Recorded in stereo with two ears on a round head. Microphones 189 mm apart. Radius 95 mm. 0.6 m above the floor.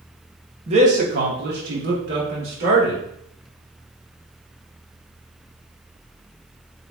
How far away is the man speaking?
About 0.7 m.